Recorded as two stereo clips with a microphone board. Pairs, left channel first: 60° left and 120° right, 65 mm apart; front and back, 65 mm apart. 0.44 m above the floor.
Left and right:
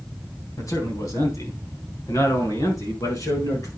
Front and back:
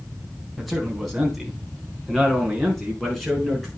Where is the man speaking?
90° left, 3.5 m.